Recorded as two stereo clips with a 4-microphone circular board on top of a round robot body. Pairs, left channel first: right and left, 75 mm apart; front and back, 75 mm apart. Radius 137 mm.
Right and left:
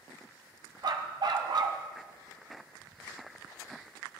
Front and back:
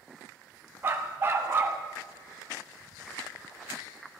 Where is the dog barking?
120° left, 1.2 m.